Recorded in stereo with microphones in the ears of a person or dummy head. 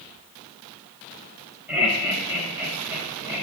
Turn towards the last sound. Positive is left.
turn(degrees=-15)  # may be behind; listen again after turning